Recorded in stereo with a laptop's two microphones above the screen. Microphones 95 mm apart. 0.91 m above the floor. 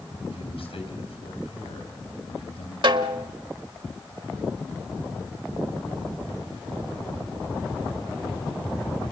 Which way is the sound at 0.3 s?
80° left.